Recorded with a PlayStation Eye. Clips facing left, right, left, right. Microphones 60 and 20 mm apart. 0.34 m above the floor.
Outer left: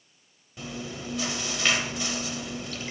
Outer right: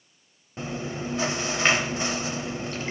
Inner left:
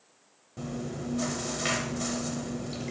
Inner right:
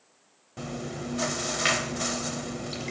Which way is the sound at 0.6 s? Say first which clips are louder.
Outer right 5 dB, inner right 1 dB; 35° right (ahead or behind).